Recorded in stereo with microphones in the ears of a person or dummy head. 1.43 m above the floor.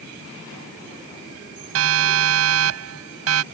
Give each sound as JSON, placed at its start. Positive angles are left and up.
{"t": 1.8, "sound": "a siren", "side_deg": -80}